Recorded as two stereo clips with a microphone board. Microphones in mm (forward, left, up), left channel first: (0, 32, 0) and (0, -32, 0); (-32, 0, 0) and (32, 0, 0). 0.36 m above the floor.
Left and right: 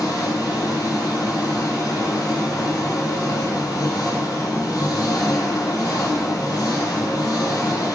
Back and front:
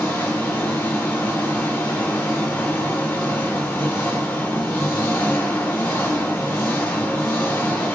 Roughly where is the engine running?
Behind left.